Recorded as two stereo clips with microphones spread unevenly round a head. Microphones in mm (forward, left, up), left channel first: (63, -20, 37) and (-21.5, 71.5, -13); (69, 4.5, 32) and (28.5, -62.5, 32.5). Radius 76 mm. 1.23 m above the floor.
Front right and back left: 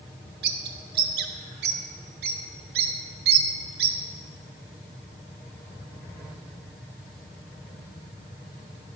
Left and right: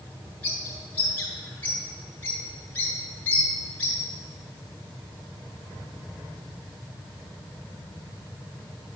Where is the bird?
140° left, 0.7 m.